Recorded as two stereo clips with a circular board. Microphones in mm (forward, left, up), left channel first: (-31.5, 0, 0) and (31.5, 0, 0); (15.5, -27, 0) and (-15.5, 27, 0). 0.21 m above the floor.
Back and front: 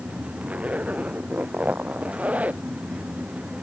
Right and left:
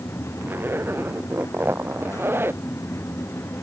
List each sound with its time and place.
0.4 s a zipper: 65° left